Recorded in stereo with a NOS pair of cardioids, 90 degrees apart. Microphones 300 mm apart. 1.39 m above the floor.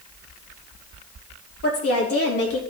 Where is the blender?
No blender in this recording.